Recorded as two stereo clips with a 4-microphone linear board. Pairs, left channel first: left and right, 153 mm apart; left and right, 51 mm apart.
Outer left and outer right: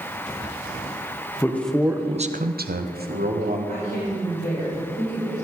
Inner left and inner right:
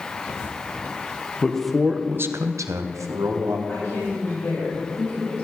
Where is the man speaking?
15° left (ahead or behind), 1.0 m; by 3.6 s 65° right (ahead or behind), 1.7 m.